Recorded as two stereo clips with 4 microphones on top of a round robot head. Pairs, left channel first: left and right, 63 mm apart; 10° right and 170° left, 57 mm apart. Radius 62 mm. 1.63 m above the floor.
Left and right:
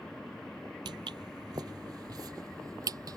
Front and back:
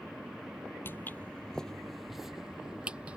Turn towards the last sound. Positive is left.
turn(degrees=-115)